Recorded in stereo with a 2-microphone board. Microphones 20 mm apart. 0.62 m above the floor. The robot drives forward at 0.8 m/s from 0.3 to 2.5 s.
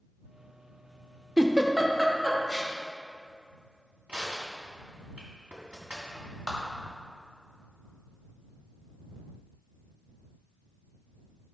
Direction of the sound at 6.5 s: 15° right (ahead or behind).